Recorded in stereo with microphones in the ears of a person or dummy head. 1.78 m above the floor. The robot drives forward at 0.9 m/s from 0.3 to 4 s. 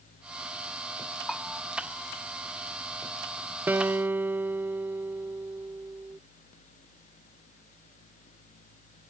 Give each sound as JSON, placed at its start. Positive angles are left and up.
{"t": 1.3, "sound": "a bell", "side_deg": 0}
{"t": 3.7, "sound": "a guitar", "side_deg": -5}